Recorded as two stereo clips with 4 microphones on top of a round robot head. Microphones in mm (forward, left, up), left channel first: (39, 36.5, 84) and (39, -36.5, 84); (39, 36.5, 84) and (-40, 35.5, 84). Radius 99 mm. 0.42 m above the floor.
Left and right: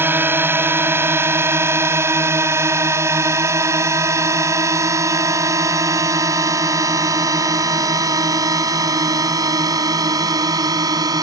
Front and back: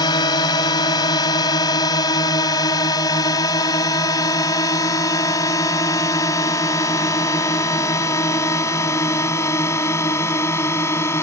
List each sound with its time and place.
0.0 s a drone: 30° right; by 11.2 s 60° right